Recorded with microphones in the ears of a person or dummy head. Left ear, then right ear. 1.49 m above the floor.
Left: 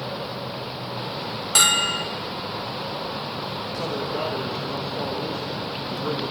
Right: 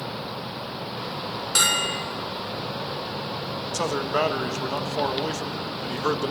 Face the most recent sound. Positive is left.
turn(degrees=-65)  # may be behind; listen again after turning